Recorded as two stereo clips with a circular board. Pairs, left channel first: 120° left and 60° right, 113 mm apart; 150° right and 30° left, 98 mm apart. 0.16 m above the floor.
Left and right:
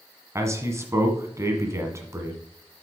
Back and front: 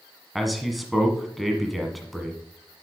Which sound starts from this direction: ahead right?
A man speaking, at 0.3 s.